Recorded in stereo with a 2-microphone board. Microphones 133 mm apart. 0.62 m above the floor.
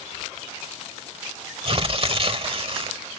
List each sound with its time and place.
1.6 s tearing paper: 45° right (ahead or behind)